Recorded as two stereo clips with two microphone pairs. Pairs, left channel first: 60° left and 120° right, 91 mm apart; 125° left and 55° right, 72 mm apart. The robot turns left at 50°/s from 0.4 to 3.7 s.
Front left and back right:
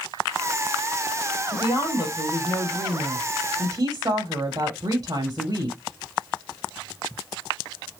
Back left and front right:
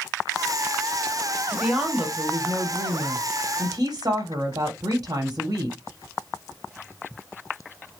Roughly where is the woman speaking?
Ahead left.